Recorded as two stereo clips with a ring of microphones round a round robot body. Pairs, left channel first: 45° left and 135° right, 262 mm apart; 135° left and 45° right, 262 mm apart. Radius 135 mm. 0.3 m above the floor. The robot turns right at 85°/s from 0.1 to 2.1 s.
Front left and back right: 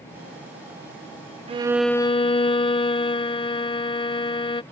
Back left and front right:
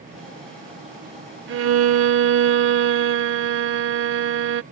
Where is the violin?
75° right; by 4.6 s 20° right.